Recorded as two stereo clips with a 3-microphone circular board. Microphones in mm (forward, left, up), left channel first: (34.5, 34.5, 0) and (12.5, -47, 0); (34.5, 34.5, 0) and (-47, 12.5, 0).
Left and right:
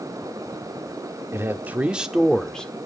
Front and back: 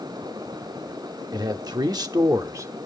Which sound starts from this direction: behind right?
A man speaking, at 1.3 s.